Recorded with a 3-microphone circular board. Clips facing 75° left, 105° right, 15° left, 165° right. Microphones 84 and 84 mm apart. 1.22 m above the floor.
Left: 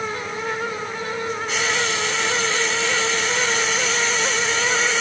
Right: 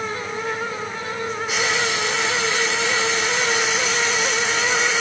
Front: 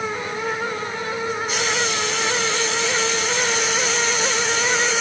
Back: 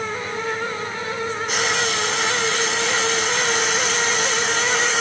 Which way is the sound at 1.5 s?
Straight behind.